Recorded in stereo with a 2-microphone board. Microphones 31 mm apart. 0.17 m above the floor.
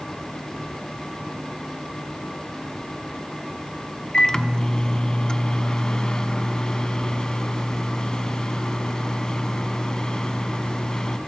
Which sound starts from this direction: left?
A microwave, at 4.1 s.